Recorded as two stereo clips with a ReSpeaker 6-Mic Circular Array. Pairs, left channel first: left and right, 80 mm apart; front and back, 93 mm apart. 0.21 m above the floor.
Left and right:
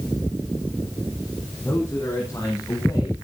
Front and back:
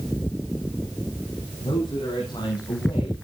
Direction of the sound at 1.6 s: 25° left.